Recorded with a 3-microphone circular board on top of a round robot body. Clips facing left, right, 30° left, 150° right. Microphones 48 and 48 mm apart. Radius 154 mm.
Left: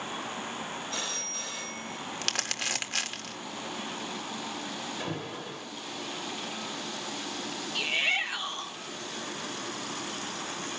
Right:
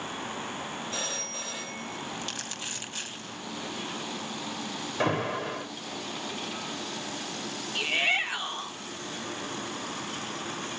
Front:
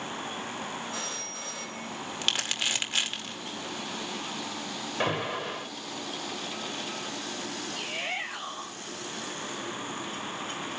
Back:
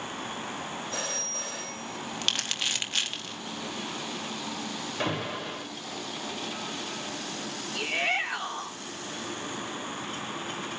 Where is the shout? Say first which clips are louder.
Right 2 dB, back 8 dB; 165° right, 2.5 m.